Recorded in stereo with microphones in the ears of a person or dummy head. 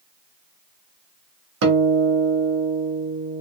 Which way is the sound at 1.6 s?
65° right (ahead or behind).